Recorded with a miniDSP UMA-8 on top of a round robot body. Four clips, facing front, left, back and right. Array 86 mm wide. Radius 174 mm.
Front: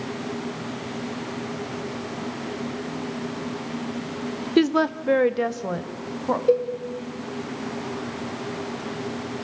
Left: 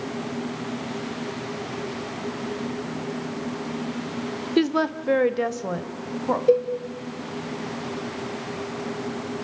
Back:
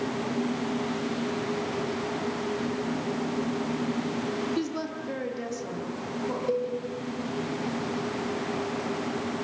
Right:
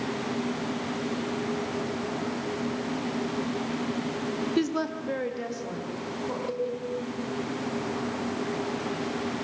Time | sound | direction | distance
4.6 | a woman speaking | 25° left | 1.4 m
6.5 | a cowbell | 50° left | 3.5 m